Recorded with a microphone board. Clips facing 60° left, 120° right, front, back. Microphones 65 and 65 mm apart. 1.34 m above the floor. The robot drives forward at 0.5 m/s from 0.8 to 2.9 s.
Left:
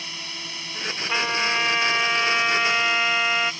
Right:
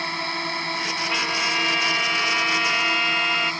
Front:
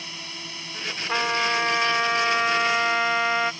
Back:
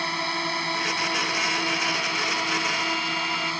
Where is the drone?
155° right.